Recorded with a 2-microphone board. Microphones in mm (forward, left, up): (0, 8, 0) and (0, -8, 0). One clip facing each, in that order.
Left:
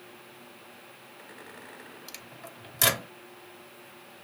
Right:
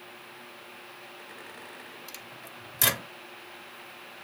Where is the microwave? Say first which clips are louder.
Right 1 dB; 15° left (ahead or behind), 0.8 m.